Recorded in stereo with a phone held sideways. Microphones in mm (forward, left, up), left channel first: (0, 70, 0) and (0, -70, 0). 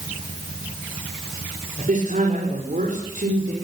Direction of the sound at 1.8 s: 65° right (ahead or behind).